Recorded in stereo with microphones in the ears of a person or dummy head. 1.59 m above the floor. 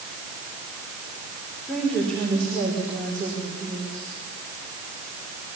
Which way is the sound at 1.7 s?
Centre (ahead or behind).